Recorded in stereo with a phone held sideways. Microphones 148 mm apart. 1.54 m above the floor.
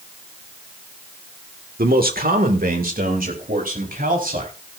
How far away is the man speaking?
About 1.5 m.